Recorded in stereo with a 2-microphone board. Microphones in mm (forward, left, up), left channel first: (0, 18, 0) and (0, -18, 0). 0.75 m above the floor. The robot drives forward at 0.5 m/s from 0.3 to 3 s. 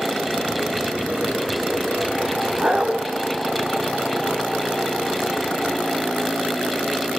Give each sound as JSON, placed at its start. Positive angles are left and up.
{"t": 2.6, "sound": "a dog barking", "side_deg": -30, "distance_m": 2.0}